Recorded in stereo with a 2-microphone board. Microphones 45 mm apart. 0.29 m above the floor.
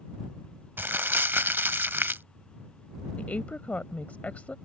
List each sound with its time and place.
0.8 s crumpling: 55° right (ahead or behind)
3.2 s a woman speaking: 35° left (ahead or behind)